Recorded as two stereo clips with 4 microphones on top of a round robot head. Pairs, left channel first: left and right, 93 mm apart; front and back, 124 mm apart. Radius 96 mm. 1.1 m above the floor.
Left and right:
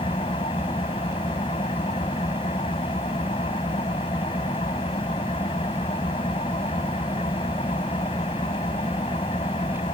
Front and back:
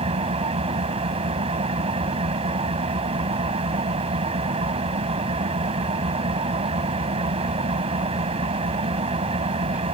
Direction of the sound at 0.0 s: 140° left.